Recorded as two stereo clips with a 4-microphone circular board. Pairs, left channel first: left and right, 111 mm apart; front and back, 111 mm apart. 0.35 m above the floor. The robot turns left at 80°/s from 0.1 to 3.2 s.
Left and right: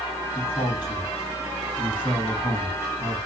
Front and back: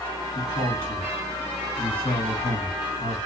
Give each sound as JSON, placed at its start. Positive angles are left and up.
{"t": 0.3, "sound": "a man speaking", "azimuth_deg": 160, "distance_m": 3.0}